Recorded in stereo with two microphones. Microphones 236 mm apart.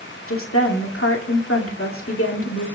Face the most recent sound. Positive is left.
turn(degrees=65)  # may be behind; listen again after turning